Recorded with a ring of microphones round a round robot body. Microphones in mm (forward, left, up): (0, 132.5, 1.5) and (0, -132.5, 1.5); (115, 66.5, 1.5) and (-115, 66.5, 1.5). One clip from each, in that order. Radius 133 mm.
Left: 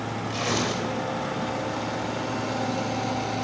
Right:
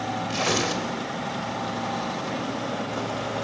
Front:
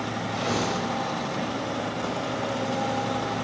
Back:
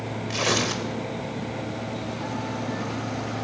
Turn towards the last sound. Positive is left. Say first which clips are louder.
# right 2 dB, back 4 dB
turn(degrees=-160)